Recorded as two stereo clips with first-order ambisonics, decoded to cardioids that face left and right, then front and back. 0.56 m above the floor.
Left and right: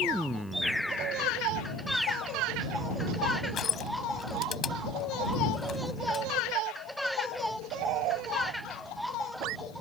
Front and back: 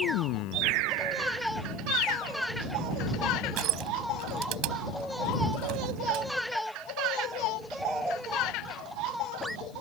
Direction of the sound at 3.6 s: 155° left.